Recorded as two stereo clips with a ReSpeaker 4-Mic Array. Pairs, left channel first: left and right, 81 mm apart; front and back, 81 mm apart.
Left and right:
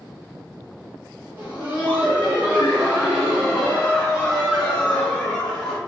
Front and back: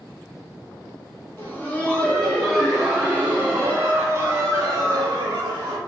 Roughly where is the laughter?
Ahead right.